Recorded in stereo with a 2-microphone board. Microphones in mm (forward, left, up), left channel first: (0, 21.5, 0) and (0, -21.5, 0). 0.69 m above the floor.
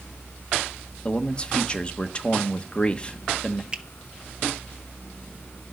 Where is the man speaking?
25° left (ahead or behind), 1.1 m.